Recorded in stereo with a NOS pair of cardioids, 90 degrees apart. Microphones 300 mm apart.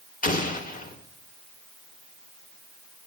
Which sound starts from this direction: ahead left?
An explosion, at 0.2 s.